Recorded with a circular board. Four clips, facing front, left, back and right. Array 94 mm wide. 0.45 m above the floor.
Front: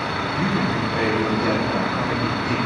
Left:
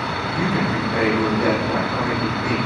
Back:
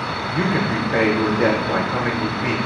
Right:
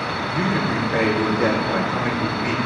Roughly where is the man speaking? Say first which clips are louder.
Even, back 3 dB; behind.